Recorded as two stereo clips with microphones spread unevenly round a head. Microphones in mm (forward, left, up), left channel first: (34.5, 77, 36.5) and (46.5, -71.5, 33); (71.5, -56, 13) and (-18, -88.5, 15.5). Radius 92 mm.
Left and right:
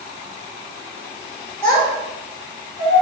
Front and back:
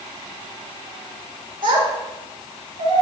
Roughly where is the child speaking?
Behind.